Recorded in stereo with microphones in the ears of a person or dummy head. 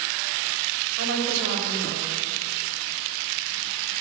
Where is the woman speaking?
65° right (ahead or behind), 5.5 m.